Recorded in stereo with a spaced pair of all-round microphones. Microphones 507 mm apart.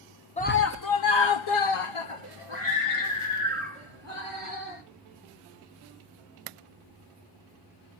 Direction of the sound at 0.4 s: 15° left (ahead or behind).